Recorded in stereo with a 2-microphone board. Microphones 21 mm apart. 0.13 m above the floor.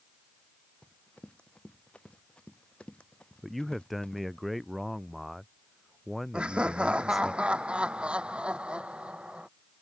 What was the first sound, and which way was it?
Running footsteps, 50° left (ahead or behind).